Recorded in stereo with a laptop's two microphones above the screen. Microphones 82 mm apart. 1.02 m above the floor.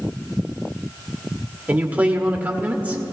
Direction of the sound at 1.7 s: 20° right (ahead or behind).